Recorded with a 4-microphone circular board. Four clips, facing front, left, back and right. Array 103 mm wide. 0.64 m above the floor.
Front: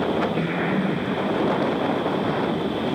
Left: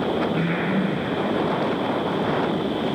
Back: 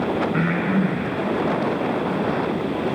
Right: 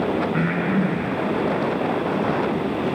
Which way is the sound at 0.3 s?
165° right.